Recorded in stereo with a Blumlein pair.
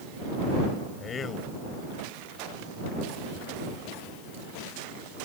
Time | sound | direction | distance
1.0 | a man speaking | 25° left | ?